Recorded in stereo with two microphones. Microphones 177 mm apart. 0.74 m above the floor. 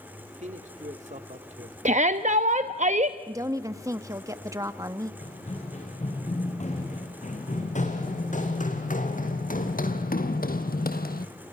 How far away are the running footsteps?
About 4.5 m.